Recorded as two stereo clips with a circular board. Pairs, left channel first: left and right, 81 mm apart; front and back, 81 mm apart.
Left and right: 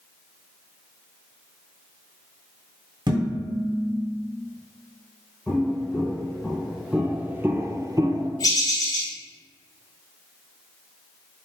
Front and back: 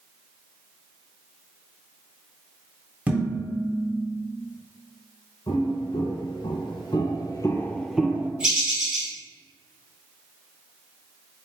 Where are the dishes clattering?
105° right, 2.0 m.